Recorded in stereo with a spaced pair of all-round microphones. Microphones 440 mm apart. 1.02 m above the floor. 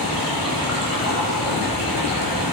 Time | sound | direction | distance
0.0 | running water | 50° left (ahead or behind) | 3 m